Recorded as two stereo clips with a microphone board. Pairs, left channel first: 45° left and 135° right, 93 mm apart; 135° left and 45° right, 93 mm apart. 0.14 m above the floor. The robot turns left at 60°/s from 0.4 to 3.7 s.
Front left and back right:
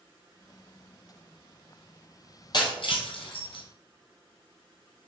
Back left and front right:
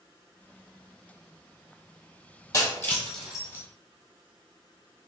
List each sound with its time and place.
2.5 s breaking glass: 80° left, 1.4 m; by 3.6 s 10° left, 1.4 m